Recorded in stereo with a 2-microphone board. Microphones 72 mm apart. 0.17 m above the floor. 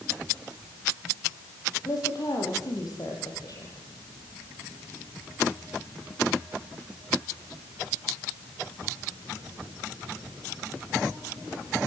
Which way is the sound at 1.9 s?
55° left (ahead or behind).